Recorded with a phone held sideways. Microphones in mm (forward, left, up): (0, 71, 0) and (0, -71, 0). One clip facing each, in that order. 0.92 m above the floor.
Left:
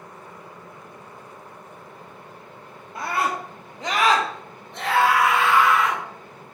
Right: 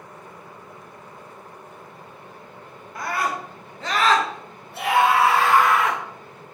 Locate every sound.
3.0 s a scream: 25° left (ahead or behind), 2.0 m; by 6.0 s 55° right (ahead or behind), 1.0 m